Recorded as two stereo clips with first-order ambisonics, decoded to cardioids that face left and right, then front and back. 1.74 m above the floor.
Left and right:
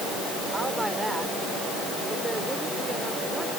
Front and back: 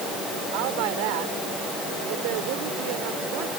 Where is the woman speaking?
170° right.